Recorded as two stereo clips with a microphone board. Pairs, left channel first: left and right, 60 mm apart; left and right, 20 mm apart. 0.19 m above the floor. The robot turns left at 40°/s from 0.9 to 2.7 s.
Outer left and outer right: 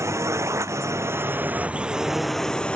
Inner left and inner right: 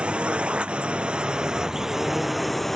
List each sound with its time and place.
0.0 s a drone: 125° right; by 2.8 s 165° left